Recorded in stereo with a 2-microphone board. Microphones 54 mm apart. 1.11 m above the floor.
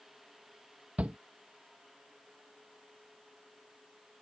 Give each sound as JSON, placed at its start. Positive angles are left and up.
{"t": 1.0, "sound": "a shout", "side_deg": -30}